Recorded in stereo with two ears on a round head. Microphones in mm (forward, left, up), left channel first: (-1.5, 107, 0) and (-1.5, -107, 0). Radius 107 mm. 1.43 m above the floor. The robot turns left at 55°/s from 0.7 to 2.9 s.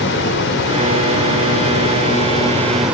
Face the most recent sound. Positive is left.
turn(degrees=-5)